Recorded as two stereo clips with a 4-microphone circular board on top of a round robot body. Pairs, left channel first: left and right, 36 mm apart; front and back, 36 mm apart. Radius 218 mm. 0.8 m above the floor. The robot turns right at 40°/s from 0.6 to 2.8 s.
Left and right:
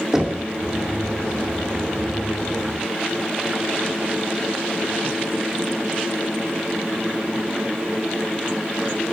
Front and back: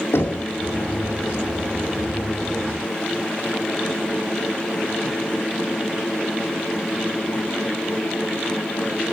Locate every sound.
0.1 s knocking: 15° right, 2.5 m